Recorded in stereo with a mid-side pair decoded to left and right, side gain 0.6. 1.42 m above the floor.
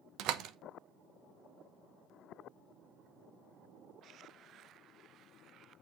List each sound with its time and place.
0.2 s a door slam: 65° right, 0.9 m